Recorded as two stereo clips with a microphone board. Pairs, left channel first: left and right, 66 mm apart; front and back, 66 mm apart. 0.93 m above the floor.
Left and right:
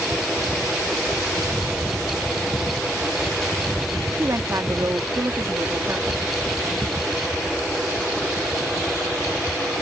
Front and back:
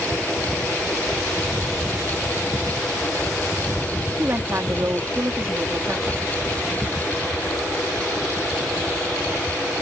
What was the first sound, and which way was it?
A woman speaking, 130° right.